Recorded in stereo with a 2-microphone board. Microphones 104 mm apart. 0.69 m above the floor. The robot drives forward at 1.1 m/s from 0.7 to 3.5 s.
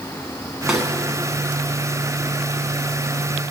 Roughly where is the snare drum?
Centre.